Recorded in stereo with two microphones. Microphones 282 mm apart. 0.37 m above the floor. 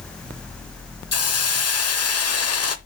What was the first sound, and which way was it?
A hiss, 60° left (ahead or behind).